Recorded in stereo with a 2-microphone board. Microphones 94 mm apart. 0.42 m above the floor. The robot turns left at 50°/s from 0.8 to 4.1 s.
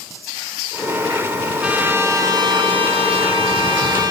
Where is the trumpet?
10° right, 3.5 m; by 4.1 s 135° right, 3.5 m.